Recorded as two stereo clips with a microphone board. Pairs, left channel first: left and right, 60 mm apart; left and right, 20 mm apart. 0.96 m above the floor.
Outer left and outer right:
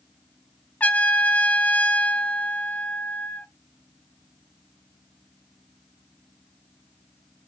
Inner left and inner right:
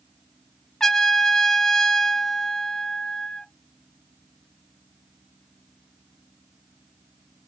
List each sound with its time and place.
0.8 s a trumpet: 25° left (ahead or behind), 0.6 m